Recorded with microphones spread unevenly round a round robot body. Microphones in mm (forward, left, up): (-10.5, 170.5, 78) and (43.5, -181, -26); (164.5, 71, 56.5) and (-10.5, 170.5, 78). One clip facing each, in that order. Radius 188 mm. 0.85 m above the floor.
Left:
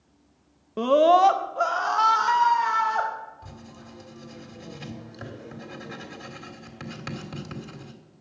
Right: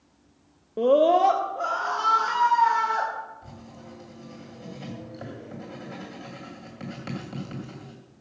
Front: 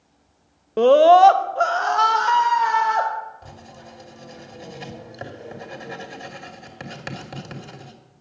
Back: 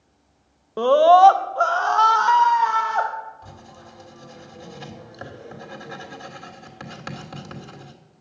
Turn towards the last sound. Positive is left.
turn(degrees=40)